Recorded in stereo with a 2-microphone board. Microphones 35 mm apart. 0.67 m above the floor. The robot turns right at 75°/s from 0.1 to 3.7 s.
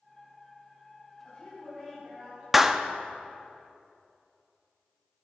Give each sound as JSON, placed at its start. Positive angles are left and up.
{"t": 1.2, "sound": "a woman speaking", "azimuth_deg": 155, "distance_m": 5.5}
{"t": 2.5, "sound": "a clap", "side_deg": -5, "distance_m": 0.6}